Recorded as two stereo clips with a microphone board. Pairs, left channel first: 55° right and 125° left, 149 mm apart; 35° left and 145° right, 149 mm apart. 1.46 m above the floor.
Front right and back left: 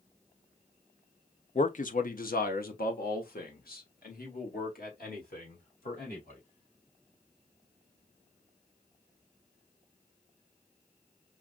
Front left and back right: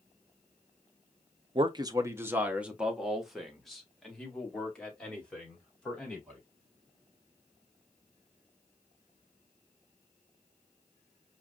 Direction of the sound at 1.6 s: 95° right.